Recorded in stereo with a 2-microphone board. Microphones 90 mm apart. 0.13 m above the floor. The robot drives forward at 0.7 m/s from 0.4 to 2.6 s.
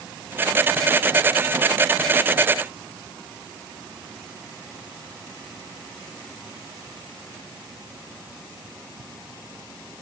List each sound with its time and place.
Only background noise.